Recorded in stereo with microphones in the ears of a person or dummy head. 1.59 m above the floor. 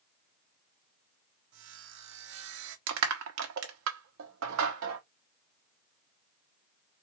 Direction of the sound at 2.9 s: 75° right (ahead or behind).